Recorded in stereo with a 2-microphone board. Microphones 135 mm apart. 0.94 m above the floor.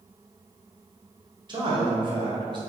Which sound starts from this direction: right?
A man speaking, at 1.5 s.